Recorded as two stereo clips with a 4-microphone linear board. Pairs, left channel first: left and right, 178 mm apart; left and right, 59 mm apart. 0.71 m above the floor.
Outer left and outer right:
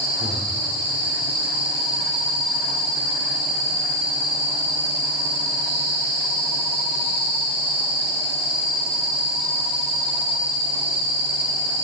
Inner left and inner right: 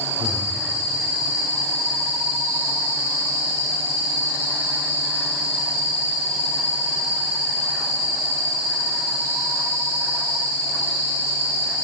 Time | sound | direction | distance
0.2 | breathing | 35° right (ahead or behind) | 1.9 m